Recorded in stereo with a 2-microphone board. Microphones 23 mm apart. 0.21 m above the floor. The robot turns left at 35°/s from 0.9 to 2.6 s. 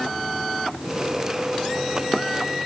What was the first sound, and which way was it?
Only background noise.